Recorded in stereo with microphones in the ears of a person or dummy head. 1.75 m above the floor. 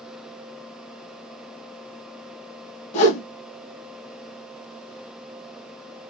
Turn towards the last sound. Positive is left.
turn(degrees=40)  # may be behind; listen again after turning